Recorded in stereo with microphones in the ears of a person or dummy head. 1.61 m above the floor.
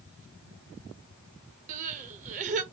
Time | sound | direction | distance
1.7 | crying | 40° right (ahead or behind) | 0.6 m